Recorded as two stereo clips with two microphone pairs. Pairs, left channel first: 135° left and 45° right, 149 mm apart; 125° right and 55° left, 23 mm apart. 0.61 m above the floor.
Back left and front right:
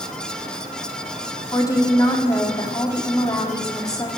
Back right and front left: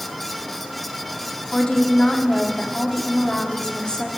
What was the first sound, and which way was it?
A woman speaking, 165° right.